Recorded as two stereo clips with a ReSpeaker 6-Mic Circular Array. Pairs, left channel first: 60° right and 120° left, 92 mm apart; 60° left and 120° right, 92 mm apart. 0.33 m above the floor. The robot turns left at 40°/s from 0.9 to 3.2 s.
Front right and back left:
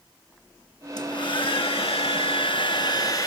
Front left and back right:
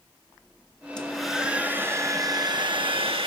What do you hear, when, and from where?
1.0 s a hair dryer: 20° right, 1.5 m; by 3.3 s 110° right, 1.5 m